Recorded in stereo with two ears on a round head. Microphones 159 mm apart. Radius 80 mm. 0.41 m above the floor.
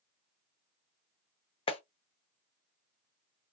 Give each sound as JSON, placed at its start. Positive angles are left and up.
{"t": 1.7, "sound": "a clap", "side_deg": 30, "distance_m": 0.6}